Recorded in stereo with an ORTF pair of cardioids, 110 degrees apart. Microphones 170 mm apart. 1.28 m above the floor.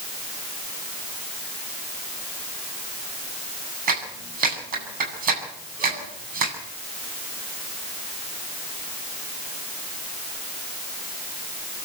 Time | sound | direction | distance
3.9 | a clap | 55° right | 8.5 m